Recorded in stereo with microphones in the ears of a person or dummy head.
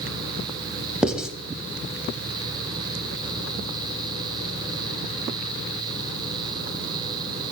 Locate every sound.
1.0 s writing: centre (ahead or behind), 0.7 m